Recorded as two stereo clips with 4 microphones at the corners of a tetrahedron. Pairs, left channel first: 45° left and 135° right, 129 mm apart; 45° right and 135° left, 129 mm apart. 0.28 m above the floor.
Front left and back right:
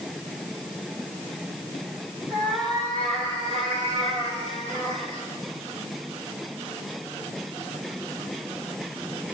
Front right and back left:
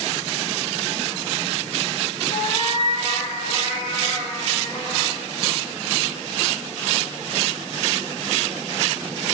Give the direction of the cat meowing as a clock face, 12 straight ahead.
3 o'clock.